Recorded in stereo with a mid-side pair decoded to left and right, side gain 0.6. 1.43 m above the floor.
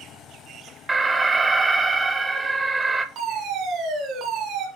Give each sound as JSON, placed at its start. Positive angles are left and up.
{"t": 0.9, "sound": "an alarm", "azimuth_deg": -15, "distance_m": 0.9}
{"t": 3.1, "sound": "a fire alarm", "azimuth_deg": -55, "distance_m": 3.0}